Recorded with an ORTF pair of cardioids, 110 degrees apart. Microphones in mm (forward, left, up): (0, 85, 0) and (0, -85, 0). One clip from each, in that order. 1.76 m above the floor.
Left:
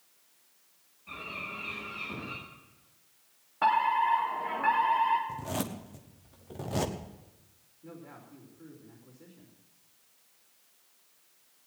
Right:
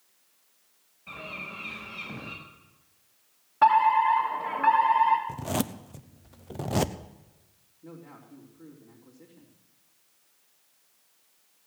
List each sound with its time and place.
1.1 s a bird: 60° right, 8 m
3.6 s a fire alarm: 40° right, 3 m
5.3 s a zipper: 35° right, 1.0 m
7.8 s a man speaking: 35° right, 4 m